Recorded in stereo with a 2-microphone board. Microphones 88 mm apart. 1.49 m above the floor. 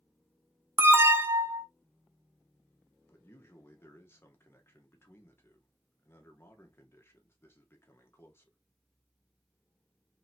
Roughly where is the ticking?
No ticking in this recording.